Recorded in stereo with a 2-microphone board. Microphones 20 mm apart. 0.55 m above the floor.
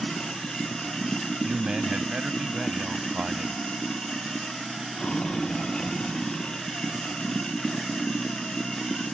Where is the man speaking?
65° right (ahead or behind).